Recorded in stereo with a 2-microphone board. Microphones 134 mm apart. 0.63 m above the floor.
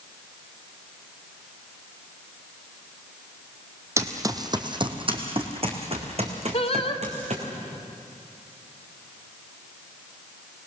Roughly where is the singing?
Left.